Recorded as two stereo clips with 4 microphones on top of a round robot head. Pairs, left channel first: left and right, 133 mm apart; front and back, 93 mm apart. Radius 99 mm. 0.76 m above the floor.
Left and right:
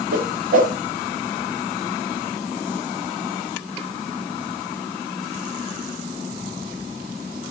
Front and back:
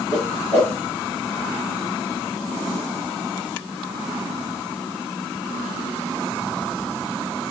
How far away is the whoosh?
About 0.9 m.